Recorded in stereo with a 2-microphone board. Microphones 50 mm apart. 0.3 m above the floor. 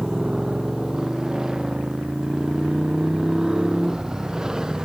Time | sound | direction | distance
0.0 | a motorcycle | 15° right (ahead or behind) | ?